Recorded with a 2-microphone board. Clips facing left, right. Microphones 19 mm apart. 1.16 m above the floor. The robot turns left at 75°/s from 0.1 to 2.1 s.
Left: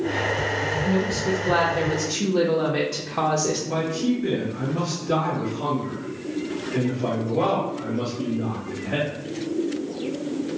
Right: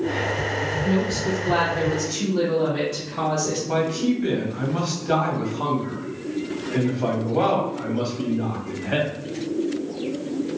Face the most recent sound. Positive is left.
turn(degrees=-65)  # may be behind; listen again after turning